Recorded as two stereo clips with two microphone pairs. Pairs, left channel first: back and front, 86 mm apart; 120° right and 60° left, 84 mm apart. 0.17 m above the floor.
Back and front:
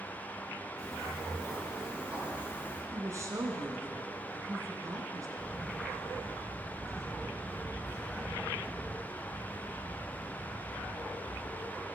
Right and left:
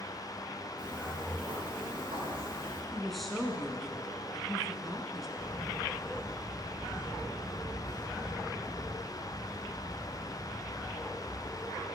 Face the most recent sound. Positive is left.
turn(degrees=-65)